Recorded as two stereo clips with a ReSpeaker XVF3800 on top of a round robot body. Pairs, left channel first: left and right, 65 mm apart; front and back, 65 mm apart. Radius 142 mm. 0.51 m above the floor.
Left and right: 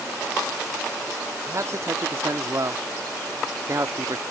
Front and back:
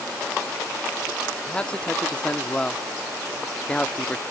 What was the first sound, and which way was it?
A man speaking, 70° right.